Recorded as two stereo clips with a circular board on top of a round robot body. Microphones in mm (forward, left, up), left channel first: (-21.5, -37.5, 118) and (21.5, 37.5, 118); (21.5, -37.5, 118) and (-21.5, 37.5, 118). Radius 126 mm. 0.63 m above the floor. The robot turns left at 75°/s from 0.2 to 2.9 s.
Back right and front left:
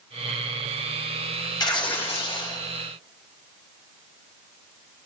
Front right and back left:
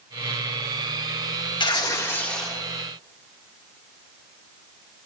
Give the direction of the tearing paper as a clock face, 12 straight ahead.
3 o'clock.